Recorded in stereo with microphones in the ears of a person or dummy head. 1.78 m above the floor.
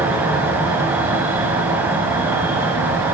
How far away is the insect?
About 1.0 m.